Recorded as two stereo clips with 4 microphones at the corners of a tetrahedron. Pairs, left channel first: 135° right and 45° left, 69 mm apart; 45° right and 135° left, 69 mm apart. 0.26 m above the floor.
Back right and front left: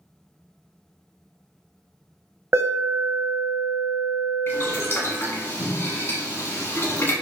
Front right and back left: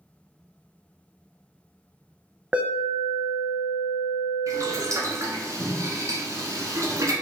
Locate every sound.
2.5 s an alarm: 75° left, 0.8 m
4.5 s boiling: 170° left, 1.4 m